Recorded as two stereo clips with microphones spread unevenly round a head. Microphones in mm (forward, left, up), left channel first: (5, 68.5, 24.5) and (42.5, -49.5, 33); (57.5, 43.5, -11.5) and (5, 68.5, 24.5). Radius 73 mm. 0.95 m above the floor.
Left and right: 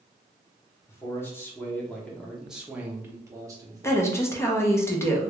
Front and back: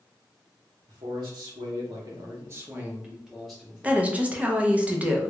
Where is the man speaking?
170° left, 1.3 m; by 4.2 s 20° right, 1.2 m.